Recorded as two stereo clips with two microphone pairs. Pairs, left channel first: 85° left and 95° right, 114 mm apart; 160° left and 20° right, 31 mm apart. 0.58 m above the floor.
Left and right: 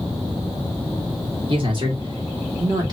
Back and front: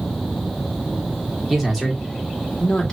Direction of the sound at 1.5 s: 100° right.